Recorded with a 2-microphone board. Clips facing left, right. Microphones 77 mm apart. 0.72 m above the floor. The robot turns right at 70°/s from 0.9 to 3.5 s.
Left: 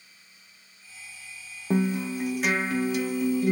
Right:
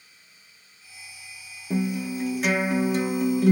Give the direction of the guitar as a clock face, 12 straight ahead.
8 o'clock.